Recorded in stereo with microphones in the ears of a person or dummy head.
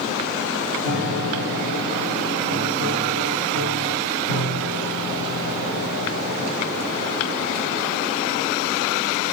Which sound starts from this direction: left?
A piano, at 0.8 s.